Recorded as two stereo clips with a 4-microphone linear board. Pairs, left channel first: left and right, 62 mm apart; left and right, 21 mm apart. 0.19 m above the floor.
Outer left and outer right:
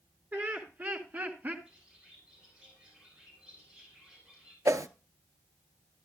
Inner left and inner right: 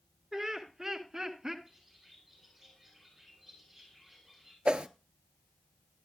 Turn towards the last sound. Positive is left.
turn(degrees=-60)  # may be behind; listen again after turning